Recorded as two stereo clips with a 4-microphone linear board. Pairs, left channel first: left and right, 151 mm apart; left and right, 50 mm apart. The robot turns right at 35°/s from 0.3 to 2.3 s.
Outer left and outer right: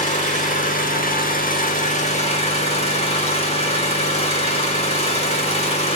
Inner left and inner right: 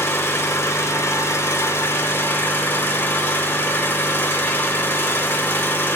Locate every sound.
0.0 s an engine running: 65° left, 1.1 m; by 6.0 s 135° left, 1.1 m